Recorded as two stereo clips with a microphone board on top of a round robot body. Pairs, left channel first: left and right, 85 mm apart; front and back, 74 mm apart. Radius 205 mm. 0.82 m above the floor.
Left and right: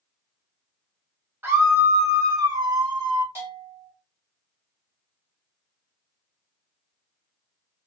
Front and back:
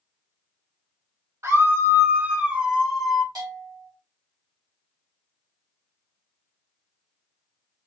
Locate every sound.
1.4 s a scream: 145° right, 1.5 m; by 3.2 s 90° right, 1.5 m
3.4 s a bell: 150° right, 1.6 m